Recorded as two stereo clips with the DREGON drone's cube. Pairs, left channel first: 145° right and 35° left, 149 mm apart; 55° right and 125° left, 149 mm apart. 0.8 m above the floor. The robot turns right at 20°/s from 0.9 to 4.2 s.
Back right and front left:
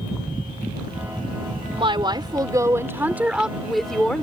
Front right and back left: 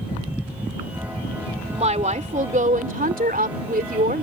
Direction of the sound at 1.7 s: 85° left.